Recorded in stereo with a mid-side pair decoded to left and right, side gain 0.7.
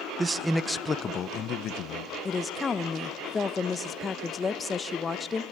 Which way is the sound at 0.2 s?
20° right.